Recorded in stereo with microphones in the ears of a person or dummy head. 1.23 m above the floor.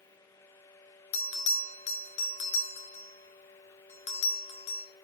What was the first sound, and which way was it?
A bell, 30° left (ahead or behind).